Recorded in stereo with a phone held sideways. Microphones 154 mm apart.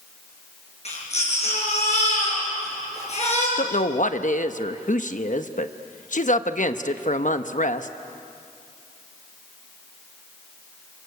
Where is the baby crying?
50° left (ahead or behind), 7.5 m.